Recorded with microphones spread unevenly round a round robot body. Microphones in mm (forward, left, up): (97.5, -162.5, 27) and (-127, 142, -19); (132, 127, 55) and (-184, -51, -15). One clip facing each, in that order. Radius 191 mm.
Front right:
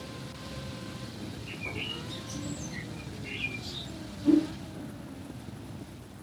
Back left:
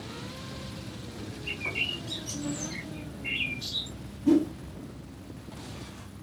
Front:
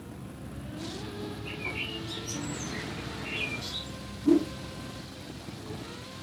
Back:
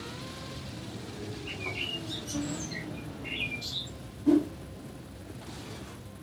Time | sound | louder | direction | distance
1.4 | a bird | back left 1 dB, front 1 dB | 110° left | 1.6 m
4.2 | a whoosh | back left 1 dB, front 1 dB | 110° left | 1.1 m